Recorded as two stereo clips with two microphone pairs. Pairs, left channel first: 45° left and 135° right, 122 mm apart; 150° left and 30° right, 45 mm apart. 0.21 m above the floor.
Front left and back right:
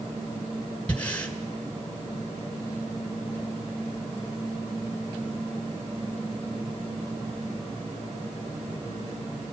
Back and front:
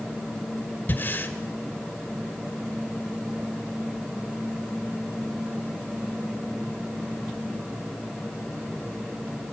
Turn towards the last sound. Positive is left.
turn(degrees=125)